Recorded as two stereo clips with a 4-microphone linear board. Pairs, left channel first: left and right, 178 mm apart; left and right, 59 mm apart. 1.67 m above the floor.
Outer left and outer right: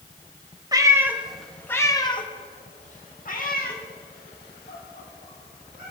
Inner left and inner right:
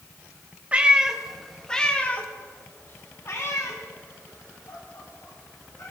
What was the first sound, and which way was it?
A cat meowing, 20° right (ahead or behind).